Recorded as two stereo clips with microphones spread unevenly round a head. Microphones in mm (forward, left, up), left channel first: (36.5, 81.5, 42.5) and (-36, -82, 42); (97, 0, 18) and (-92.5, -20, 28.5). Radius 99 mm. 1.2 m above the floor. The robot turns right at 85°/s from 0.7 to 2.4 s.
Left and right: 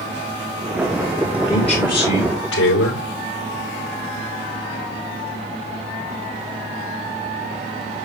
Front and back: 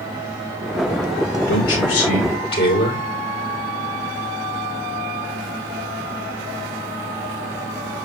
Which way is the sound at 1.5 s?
10° right.